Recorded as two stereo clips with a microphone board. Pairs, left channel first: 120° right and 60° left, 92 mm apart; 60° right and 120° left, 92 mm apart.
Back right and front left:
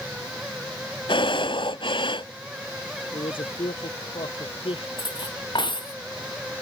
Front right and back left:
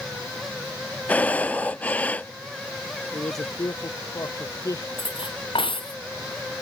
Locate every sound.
1.1 s breathing: 135° right
3.1 s a man speaking: 110° right
5.0 s cutlery clinking: 85° right